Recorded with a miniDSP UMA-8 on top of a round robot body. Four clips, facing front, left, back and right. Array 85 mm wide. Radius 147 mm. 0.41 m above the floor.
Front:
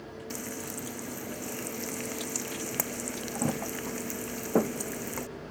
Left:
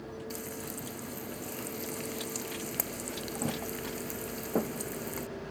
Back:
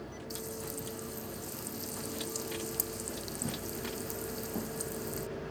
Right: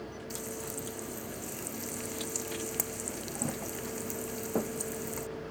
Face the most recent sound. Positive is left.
turn(degrees=5)